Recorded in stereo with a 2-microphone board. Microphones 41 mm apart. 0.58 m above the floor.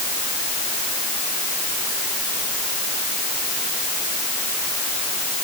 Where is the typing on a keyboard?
No typing on a keyboard in this recording.